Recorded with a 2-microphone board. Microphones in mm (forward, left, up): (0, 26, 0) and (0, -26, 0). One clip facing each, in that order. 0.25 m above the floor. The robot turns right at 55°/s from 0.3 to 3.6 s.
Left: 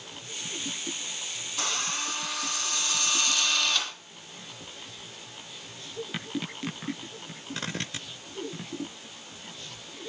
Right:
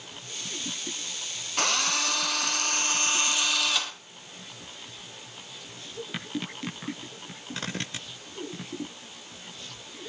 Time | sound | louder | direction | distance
1.6 | a drill | right 5 dB | 115° right | 3 m